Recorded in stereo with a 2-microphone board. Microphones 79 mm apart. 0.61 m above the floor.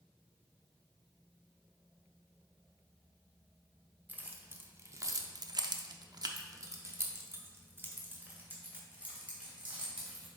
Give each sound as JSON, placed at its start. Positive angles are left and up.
{"t": 4.1, "sound": "keys jangling", "side_deg": -20, "distance_m": 1.0}